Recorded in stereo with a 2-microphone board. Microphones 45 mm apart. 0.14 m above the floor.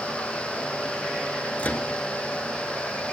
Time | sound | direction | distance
1.6 | a microwave | 40° left (ahead or behind) | 1.7 m